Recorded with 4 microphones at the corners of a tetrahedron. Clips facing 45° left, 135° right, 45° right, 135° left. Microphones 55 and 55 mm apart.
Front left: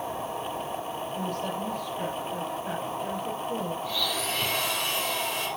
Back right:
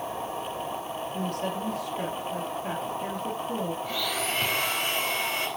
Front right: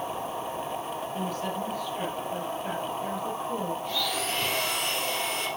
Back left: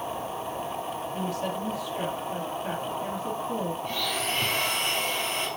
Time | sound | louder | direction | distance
1.1 | a woman speaking | back right 1 dB, back left 1 dB | 145° right | 3 m
3.8 | a blender | even, even | 170° right | 3 m